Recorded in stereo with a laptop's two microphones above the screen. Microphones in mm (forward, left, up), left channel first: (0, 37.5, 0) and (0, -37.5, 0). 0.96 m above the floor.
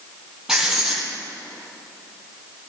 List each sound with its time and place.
0.5 s writing: 10° right (ahead or behind), 5 m